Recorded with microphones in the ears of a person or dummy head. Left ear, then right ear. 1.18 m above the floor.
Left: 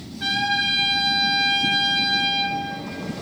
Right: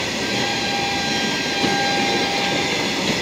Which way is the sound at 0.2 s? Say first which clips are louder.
Left 4 dB; 30° left (ahead or behind).